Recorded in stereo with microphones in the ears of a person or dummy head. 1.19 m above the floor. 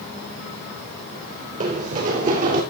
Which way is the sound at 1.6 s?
40° right (ahead or behind).